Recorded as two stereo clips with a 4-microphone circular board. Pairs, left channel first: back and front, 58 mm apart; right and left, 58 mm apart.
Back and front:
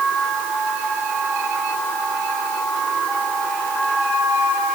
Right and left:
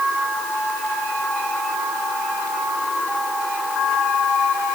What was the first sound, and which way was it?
Only background noise.